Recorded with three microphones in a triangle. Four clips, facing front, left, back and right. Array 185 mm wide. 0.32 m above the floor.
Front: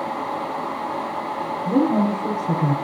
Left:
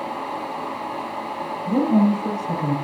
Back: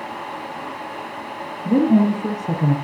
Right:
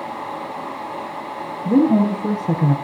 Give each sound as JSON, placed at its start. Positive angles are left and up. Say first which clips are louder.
{"t": 1.6, "sound": "a woman speaking", "louder": "right 3 dB, back 3 dB", "azimuth_deg": -120, "distance_m": 4.5}